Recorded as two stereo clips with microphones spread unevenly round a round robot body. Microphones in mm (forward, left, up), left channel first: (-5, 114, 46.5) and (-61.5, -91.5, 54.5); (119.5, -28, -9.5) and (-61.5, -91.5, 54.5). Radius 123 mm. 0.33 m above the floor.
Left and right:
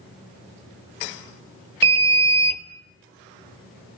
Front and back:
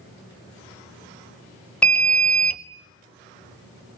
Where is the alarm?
50° right, 1.3 m.